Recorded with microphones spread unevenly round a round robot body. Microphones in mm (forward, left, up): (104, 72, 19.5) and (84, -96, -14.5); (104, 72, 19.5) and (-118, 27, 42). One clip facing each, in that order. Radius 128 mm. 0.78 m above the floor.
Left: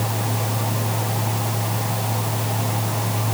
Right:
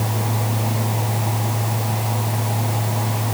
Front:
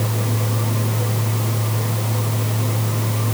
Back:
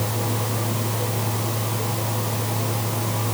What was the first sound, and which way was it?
Only background noise.